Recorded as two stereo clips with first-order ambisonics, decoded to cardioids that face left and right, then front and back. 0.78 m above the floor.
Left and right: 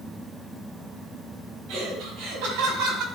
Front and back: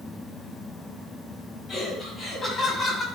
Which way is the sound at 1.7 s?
55° right.